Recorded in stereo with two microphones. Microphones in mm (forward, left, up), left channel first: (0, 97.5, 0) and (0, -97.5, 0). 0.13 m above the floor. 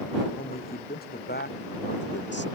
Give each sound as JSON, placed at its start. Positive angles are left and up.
{"t": 0.3, "sound": "a man speaking", "side_deg": 50}